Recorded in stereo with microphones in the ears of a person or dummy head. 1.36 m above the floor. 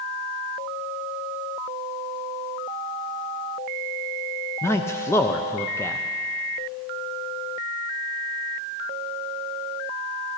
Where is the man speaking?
15° left (ahead or behind), 0.6 m.